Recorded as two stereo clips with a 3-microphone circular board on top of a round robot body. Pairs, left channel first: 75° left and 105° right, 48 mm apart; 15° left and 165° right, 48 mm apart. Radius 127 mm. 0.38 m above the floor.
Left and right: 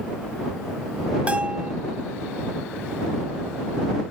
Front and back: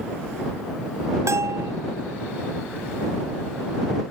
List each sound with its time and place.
1.3 s a bell: 170° right